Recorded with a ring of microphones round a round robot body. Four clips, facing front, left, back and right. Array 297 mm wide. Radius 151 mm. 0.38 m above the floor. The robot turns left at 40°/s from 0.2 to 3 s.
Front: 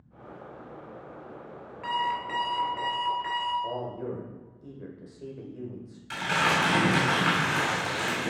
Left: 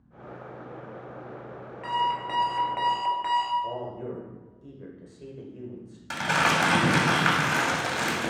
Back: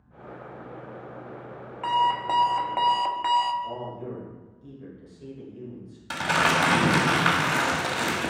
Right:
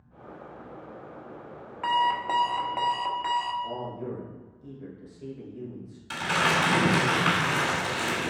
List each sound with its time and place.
1.8 s an alarm clock: 130° right, 0.9 m; by 3.5 s straight behind, 0.9 m
3.6 s a man speaking: 40° left, 1.6 m
6.1 s crumpling: 145° left, 1.7 m